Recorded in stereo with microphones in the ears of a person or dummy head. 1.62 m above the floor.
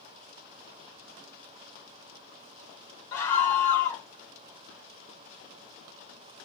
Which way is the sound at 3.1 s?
10° left (ahead or behind).